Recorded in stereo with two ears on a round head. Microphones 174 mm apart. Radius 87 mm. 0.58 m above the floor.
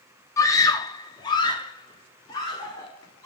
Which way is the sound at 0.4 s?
15° left (ahead or behind).